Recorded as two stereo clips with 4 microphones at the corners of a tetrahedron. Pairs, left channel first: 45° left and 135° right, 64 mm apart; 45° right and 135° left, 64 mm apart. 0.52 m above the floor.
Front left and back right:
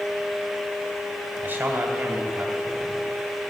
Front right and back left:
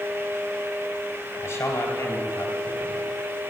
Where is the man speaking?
75° right, 2.5 m.